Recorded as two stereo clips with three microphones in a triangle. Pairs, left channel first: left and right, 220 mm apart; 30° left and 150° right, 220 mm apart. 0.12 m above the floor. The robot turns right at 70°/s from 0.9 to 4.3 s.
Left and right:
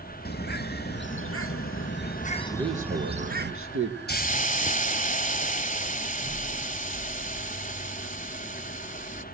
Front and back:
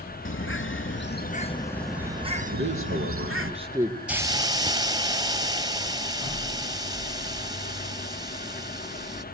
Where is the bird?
50° left, 1.3 m; by 3.5 s 125° right, 1.3 m.